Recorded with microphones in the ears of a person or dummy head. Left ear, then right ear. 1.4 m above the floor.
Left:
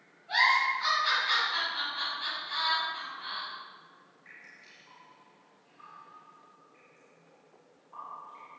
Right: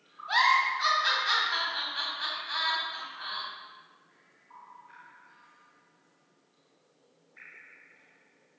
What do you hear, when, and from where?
0.3 s a giggle: 55° right (ahead or behind), 1.9 m